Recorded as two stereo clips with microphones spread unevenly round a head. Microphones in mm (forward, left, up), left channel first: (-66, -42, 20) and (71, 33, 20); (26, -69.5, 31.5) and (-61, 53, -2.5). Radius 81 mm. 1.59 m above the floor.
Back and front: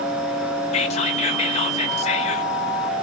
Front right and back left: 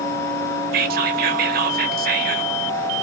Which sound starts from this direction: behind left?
Whispering, at 0.7 s.